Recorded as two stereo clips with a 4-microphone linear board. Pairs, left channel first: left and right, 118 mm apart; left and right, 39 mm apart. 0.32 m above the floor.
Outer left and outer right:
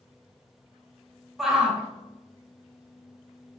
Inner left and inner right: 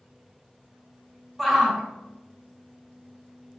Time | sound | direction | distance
1.4 | a shout | centre (ahead or behind) | 1.1 m